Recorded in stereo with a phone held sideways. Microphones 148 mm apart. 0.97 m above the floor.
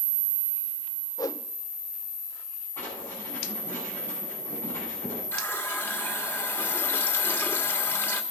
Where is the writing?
15° left (ahead or behind), 10 m.